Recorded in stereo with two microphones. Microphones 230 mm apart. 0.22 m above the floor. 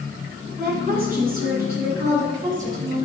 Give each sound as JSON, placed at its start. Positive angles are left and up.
{"t": 0.6, "sound": "a woman speaking", "side_deg": -45, "distance_m": 2.0}